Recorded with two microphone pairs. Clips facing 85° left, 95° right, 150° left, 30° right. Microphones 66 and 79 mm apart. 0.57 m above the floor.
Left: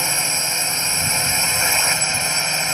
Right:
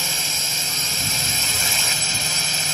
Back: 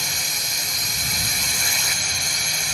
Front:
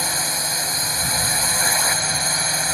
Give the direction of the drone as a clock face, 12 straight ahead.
11 o'clock.